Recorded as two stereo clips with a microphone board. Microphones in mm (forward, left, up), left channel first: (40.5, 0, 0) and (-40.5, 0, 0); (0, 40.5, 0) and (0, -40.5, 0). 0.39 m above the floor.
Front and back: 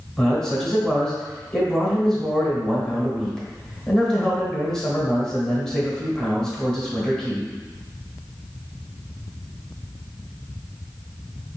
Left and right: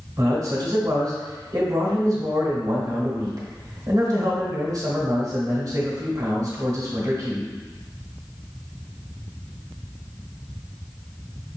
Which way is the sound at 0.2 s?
80° right.